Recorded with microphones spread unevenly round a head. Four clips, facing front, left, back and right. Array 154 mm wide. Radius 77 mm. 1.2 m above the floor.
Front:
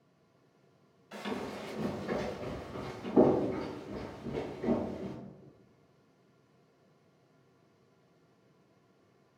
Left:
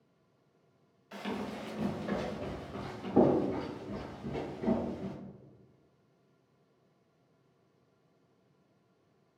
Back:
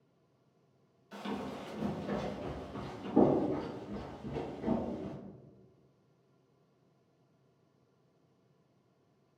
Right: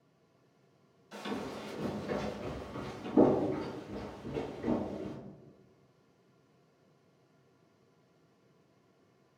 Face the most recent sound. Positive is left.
turn(degrees=85)